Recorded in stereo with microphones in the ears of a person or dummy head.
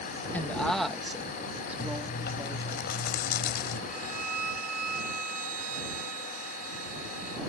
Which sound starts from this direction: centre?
A woman speaking, at 0.3 s.